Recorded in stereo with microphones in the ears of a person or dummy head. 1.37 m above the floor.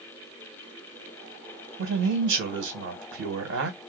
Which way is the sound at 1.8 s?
70° right (ahead or behind).